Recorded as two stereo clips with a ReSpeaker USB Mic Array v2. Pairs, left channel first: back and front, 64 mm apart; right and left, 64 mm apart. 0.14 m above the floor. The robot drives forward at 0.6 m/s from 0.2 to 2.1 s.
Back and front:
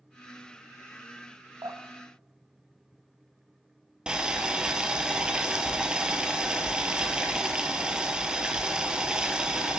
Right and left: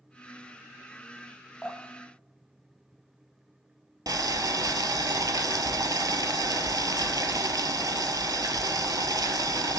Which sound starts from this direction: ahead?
Dripping, at 1.6 s.